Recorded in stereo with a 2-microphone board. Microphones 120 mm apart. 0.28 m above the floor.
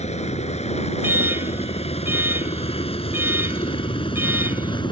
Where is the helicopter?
70° left (ahead or behind); by 4.9 s 40° left (ahead or behind).